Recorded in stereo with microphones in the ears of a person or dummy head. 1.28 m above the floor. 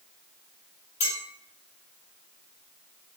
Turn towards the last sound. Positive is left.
turn(degrees=35)  # may be behind; listen again after turning